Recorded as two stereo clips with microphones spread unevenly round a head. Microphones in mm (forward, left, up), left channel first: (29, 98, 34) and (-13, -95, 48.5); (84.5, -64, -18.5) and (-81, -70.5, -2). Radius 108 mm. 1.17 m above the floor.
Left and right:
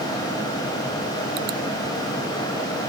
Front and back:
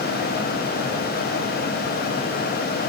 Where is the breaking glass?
No breaking glass in this recording.